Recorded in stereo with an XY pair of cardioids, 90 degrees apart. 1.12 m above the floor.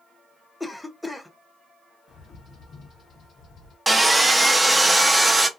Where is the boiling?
No boiling in this recording.